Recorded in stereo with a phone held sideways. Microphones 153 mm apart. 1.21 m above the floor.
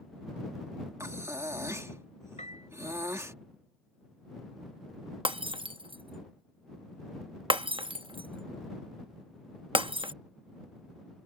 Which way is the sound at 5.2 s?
35° right (ahead or behind).